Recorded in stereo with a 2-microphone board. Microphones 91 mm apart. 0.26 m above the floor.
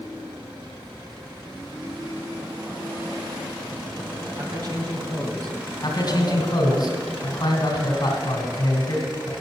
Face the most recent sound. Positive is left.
turn(degrees=50)  # may be behind; listen again after turning